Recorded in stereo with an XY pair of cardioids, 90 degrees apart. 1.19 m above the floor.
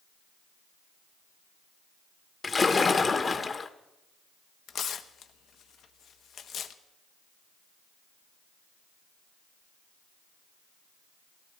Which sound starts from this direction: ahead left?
A splash, at 2.4 s.